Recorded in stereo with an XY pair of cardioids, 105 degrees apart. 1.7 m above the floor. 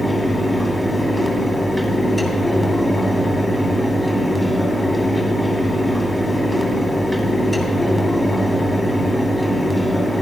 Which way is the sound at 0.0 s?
5° left.